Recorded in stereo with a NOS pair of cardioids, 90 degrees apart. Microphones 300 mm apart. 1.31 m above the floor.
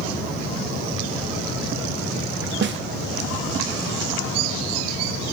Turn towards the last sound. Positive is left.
turn(degrees=-40)